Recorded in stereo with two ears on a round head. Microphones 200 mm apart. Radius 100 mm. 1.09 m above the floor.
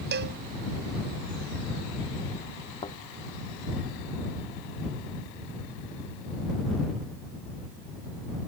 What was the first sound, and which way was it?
A cowbell, 55° right (ahead or behind).